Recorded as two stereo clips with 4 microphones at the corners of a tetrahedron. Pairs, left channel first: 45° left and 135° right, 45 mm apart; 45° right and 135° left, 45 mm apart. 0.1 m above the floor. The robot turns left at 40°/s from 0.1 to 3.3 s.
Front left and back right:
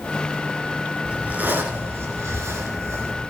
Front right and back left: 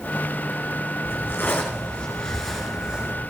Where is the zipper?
75° right, 3 m; by 3.1 s 160° right, 3 m.